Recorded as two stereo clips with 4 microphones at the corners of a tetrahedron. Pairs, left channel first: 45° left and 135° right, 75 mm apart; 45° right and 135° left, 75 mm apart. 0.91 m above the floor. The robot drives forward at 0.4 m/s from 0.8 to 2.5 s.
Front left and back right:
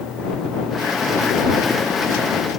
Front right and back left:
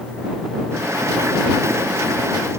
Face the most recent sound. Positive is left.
No sound to turn to.